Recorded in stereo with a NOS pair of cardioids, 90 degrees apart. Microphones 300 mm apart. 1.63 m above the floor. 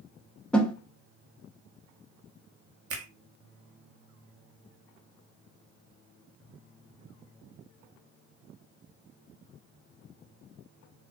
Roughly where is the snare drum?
Ahead.